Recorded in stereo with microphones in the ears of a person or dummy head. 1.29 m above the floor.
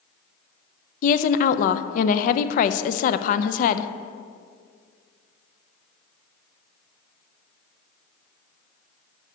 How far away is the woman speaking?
About 0.5 m.